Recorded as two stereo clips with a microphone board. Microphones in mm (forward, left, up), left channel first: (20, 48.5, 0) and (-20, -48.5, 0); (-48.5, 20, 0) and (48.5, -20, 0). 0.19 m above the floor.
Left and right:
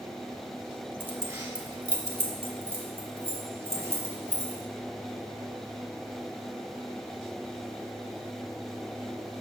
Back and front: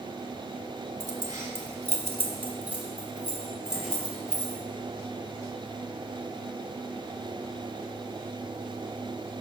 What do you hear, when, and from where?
1.0 s keys jangling: 50° right, 1.1 m; by 4.6 s 110° right, 3 m